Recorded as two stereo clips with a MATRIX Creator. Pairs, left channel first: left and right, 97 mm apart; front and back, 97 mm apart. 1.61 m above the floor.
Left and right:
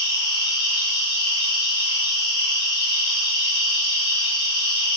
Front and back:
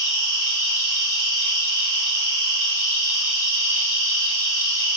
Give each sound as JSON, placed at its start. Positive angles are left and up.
{"t": 0.0, "sound": "an insect", "azimuth_deg": 55, "distance_m": 1.0}